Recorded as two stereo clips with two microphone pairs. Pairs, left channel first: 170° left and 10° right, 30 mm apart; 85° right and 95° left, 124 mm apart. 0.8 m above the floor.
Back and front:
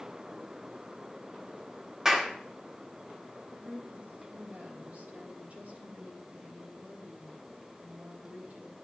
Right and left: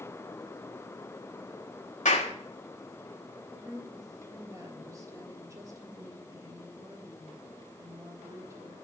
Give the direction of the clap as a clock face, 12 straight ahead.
3 o'clock.